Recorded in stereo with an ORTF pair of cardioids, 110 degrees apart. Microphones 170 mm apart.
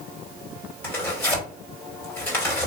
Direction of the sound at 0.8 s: 10° left.